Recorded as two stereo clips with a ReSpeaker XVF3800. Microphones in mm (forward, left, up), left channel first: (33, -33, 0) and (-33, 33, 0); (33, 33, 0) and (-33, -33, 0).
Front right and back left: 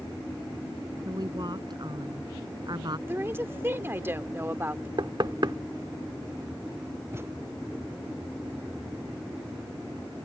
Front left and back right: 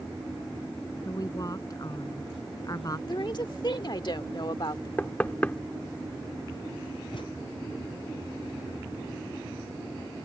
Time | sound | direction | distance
1.1 | a woman speaking | 95° left | ?
3.1 | a woman speaking | 70° left | ?
5.0 | knocking | 110° left | ?
7.1 | a thud | 70° left | ?